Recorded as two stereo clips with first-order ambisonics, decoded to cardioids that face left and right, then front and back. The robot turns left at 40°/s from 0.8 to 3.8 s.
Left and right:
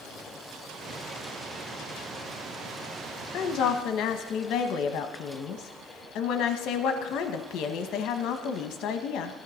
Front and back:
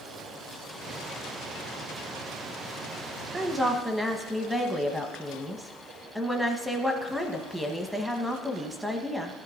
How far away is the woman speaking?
About 1.0 m.